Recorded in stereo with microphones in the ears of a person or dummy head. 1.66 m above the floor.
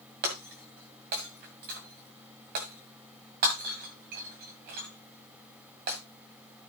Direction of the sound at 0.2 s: 35° right (ahead or behind).